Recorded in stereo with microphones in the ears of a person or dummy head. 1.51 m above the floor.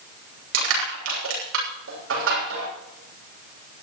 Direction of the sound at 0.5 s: 75° right (ahead or behind).